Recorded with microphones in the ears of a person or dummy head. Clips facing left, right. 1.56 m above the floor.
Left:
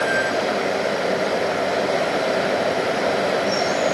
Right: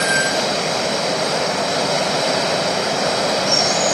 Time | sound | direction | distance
0.0 | running water | 70° right (ahead or behind) | ?